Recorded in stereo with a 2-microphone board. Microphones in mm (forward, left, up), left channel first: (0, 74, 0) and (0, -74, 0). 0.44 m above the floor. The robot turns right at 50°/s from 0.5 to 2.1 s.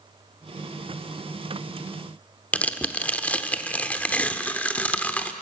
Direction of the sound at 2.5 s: 10° left (ahead or behind).